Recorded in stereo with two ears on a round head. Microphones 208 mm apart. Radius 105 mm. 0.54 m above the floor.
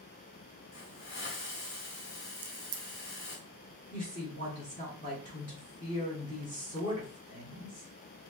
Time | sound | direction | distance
0.7 | a hiss | 50° left (ahead or behind) | 2 m
2.4 | a crack | 55° right (ahead or behind) | 0.6 m
3.9 | a woman speaking | 30° left (ahead or behind) | 1.6 m